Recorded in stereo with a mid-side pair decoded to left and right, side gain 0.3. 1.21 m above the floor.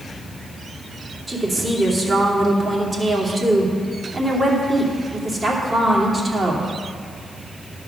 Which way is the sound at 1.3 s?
40° right.